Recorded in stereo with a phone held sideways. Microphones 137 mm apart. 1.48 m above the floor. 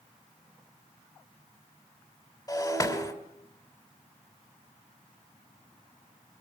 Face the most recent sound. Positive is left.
turn(degrees=25)  # may be behind; listen again after turning